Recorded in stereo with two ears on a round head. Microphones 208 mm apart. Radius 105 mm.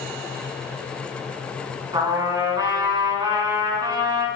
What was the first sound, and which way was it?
A trumpet, 20° right (ahead or behind).